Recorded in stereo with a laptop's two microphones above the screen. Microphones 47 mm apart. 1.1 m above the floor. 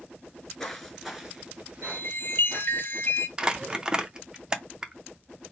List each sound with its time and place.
0.3 s footsteps: 20° left (ahead or behind), 1.1 m; by 2.8 s 45° right (ahead or behind), 1.5 m
1.8 s a chime: 50° left (ahead or behind), 1.6 m
3.4 s crumpling: 20° right (ahead or behind), 0.6 m